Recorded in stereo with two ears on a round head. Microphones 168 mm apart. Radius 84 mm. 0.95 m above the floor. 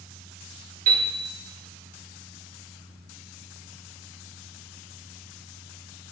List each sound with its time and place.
0.9 s a piano: 50° right (ahead or behind), 2.5 m